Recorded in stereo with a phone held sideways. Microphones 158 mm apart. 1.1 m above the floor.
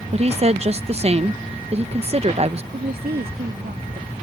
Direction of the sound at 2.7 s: 80° right.